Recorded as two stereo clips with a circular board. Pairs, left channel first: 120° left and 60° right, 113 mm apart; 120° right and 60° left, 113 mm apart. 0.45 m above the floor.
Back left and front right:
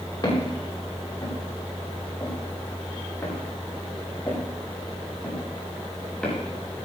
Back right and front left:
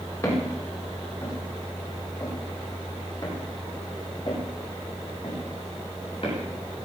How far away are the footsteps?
About 9 m.